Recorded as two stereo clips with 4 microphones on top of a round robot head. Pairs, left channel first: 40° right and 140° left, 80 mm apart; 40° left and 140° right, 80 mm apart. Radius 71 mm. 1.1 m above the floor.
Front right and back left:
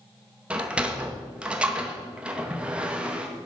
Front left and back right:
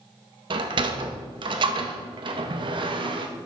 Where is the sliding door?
145° right, 1.7 m.